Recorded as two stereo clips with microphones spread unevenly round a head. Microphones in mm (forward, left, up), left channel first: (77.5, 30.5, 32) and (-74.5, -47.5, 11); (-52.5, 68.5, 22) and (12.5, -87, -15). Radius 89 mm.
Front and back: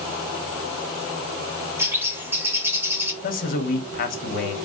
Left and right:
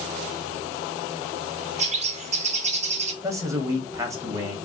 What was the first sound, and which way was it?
A bird, 85° right.